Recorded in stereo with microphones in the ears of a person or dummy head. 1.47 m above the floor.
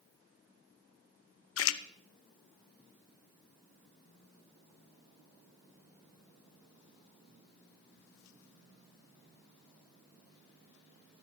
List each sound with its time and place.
1.6 s a splash: 70° left (ahead or behind), 0.7 m